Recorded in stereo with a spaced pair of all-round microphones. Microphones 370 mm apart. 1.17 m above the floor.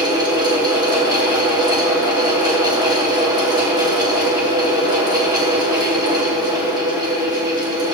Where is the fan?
10° right (ahead or behind), 3.5 m.